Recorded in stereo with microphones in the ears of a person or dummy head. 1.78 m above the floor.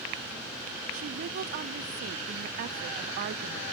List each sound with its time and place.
0.9 s a woman speaking: 45° right (ahead or behind), 0.6 m